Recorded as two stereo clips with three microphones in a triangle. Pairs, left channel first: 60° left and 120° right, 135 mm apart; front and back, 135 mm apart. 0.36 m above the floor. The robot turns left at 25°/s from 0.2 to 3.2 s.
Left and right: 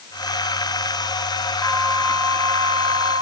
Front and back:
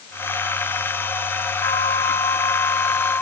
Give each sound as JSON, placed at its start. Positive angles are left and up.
{"t": 1.6, "sound": "a flute", "azimuth_deg": -35}